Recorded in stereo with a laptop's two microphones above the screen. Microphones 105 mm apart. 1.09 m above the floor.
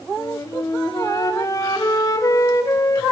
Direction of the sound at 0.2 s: 35° left (ahead or behind).